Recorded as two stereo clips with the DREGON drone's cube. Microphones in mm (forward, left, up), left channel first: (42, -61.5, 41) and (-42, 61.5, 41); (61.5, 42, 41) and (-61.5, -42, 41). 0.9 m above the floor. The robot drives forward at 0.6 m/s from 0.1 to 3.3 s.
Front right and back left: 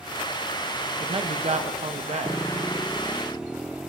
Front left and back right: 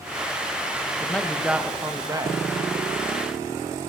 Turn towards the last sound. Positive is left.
turn(degrees=165)